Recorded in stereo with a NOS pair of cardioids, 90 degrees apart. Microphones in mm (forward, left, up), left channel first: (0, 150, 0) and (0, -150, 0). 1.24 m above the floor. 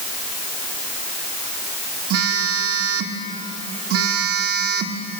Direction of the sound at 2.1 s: 55° right.